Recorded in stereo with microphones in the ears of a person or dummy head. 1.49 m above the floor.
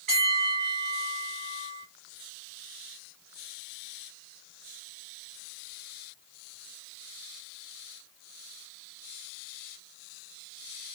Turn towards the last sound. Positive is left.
turn(degrees=-40)  # may be behind; listen again after turning